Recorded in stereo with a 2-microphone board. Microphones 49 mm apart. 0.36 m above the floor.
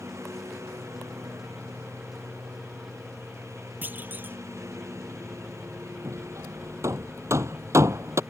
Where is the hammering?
80° right.